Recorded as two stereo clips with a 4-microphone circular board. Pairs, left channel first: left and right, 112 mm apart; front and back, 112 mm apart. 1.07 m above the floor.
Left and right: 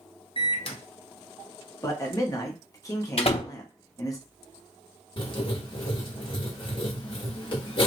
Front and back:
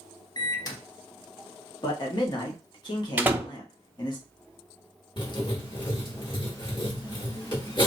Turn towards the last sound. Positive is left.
turn(degrees=45)